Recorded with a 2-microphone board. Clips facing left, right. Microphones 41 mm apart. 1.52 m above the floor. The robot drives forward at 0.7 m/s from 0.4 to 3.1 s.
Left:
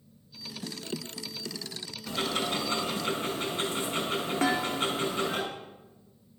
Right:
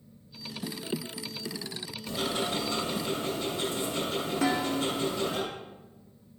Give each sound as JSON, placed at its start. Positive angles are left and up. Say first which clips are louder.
{"t": 2.1, "sound": "ticking", "louder": "left 1 dB", "side_deg": 50, "distance_m": 7.0}
{"t": 4.4, "sound": "dishes clattering", "louder": "even", "side_deg": 45, "distance_m": 2.5}